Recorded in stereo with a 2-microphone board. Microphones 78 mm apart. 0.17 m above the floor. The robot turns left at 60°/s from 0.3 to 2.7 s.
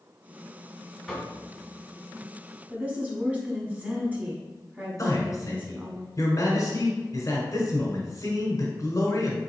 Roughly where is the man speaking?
Left.